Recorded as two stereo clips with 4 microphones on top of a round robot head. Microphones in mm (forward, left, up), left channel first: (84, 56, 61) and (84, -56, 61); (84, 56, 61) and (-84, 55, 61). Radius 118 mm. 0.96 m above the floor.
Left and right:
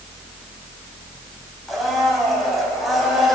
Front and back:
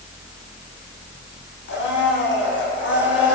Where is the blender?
Straight ahead, 7.5 m.